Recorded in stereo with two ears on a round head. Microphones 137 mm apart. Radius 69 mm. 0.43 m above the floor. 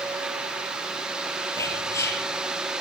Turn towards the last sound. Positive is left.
turn(degrees=20)  # may be behind; listen again after turning